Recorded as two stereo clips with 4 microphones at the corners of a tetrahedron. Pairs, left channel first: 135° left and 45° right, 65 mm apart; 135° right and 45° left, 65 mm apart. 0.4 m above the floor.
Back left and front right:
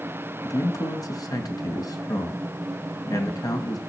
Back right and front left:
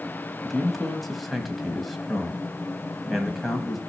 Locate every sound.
0.4 s a man speaking: 135° left, 2.5 m